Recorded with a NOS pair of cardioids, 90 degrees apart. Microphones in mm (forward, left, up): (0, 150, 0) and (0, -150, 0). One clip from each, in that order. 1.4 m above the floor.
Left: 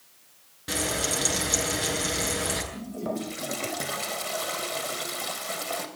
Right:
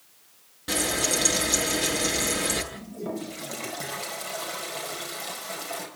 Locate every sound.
0.7 s frying: 10° right, 9 m
2.7 s a toilet flushing: 30° left, 5 m